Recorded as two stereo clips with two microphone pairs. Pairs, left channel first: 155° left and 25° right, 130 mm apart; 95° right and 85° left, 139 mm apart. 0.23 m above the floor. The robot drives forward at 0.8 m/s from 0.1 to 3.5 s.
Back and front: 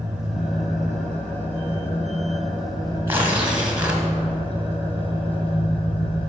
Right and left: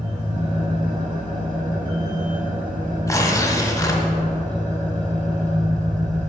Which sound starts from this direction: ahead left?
An engine running, at 0.0 s.